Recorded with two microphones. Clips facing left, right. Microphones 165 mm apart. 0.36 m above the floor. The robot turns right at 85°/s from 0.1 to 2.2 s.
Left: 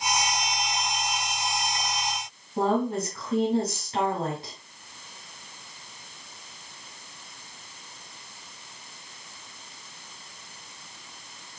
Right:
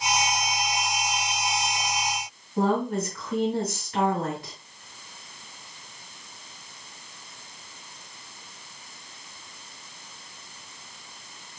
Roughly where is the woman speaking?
Left.